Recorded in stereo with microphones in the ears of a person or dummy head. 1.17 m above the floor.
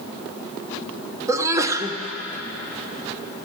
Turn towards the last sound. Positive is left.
turn(degrees=-15)  # may be behind; listen again after turning